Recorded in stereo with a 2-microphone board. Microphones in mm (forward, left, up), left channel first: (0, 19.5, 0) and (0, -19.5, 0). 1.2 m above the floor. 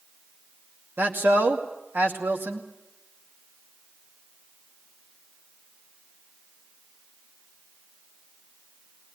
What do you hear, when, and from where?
1.0 s a man speaking: 70° right (ahead or behind), 2.5 m